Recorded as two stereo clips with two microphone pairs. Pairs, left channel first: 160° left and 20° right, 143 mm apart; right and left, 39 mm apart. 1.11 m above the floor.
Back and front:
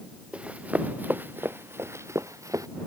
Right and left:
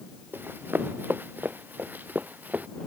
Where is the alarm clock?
No alarm clock in this recording.